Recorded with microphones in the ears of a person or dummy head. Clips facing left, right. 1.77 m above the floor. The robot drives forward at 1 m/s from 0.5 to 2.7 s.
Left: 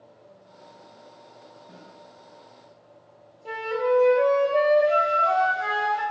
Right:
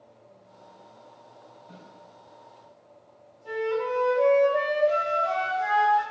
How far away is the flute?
About 0.6 m.